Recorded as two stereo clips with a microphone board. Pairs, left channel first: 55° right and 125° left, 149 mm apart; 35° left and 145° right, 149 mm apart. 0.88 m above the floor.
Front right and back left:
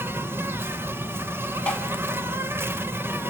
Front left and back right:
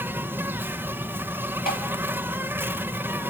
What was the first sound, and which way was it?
An insect, 165° left.